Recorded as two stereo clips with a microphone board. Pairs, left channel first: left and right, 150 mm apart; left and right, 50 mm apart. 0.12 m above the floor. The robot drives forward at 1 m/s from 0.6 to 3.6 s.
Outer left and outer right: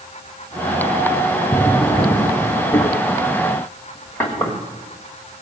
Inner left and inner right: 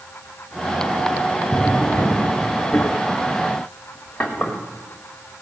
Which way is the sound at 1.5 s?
20° left (ahead or behind).